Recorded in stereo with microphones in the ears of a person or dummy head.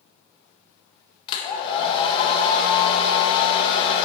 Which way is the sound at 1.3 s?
30° left (ahead or behind).